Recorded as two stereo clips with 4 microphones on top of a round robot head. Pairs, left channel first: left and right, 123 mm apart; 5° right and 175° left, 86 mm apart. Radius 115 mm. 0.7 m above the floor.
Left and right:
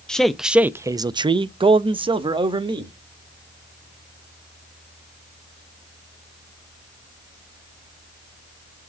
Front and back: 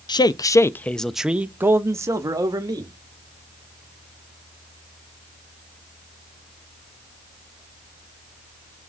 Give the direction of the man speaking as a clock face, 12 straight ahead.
12 o'clock.